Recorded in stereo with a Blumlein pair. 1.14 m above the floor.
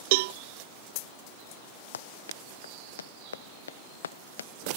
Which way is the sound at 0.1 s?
50° right.